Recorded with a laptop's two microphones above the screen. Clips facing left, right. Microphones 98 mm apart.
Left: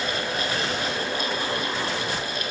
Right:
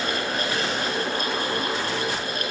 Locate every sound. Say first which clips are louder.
0.0 s a fan: right 1 dB; 45° right (ahead or behind), 4.5 m